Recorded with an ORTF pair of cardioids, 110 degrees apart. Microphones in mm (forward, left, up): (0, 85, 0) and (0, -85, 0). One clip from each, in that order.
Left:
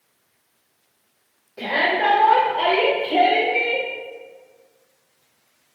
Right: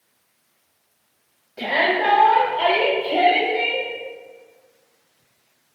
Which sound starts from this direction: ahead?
A shout, at 1.6 s.